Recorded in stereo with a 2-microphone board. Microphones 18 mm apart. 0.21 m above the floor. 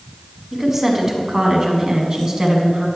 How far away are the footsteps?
I don't hear footsteps.